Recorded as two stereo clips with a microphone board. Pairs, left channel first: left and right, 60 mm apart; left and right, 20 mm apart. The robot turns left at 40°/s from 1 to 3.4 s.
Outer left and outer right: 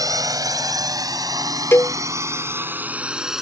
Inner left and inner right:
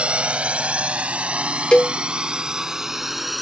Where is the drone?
70° right (ahead or behind); by 3.4 s 5° right (ahead or behind).